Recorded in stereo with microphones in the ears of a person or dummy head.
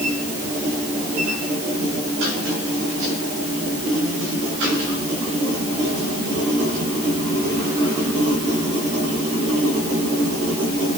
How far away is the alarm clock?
No alarm clock in this recording.